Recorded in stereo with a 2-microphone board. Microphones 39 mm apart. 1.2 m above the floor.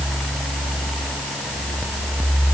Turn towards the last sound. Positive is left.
No sound to turn to.